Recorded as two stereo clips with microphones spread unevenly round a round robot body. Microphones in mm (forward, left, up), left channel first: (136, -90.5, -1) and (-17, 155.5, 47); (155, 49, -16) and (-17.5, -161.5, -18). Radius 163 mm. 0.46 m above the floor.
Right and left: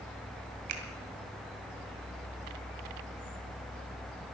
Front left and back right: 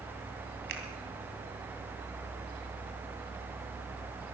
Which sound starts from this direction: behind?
A finger snap, at 0.7 s.